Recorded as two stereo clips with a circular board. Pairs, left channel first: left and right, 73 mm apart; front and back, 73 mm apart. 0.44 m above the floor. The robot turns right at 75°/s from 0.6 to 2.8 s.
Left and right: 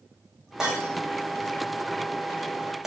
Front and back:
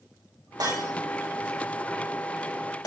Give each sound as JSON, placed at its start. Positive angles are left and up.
{"t": 0.6, "sound": "breaking glass", "azimuth_deg": -170, "distance_m": 7.0}